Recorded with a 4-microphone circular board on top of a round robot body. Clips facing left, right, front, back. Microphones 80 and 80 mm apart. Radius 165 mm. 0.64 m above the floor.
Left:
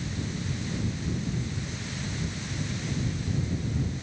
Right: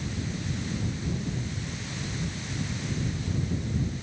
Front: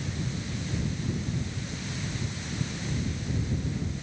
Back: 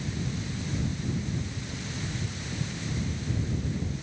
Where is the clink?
No clink in this recording.